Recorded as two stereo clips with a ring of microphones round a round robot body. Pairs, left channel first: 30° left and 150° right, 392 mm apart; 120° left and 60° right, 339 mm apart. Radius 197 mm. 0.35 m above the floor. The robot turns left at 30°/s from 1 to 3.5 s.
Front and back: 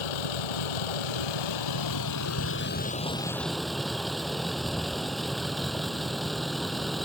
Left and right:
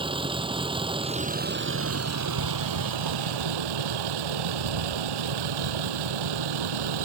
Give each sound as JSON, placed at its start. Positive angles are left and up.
{"t": 0.0, "sound": "a vehicle", "azimuth_deg": 15}